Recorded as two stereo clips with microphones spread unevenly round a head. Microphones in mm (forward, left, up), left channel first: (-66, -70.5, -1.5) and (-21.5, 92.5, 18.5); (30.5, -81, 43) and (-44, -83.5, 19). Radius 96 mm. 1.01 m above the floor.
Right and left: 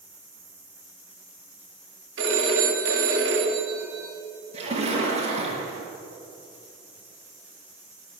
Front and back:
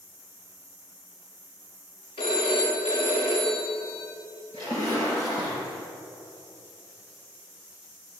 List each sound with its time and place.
2.2 s a phone ringing: 40° left, 1.8 m
4.5 s a splash: 125° left, 4 m